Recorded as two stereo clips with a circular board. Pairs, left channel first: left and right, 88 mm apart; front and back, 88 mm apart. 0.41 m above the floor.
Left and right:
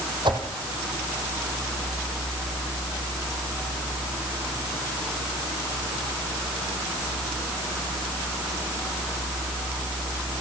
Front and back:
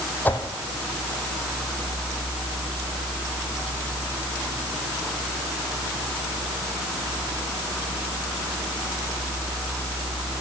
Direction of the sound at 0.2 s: 70° right.